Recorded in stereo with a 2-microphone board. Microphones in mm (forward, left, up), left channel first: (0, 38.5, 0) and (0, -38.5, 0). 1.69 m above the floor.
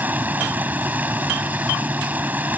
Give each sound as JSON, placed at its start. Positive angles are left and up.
{"t": 0.0, "sound": "running water", "side_deg": -20}